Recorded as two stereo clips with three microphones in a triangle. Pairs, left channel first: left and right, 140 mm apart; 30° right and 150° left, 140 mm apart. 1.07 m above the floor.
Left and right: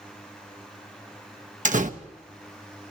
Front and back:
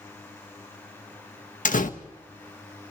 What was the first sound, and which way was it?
A door slam, 60° right.